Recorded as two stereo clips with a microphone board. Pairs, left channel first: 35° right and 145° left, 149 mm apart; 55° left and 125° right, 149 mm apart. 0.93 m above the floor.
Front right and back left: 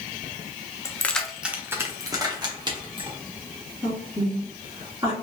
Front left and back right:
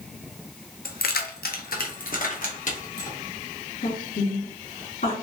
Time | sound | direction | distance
0.8 | keys jangling | 35° left | 0.5 m
3.8 | a woman speaking | 80° left | 1.8 m